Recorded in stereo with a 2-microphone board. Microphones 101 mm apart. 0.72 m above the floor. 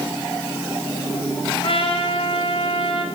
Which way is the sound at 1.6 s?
60° left (ahead or behind).